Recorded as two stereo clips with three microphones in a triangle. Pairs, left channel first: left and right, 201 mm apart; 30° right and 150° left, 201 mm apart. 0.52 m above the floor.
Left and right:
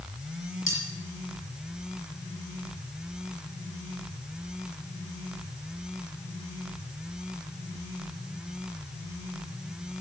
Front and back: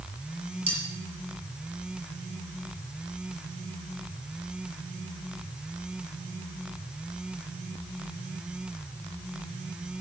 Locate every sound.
0.7 s cutlery clinking: 90° left, 5.5 m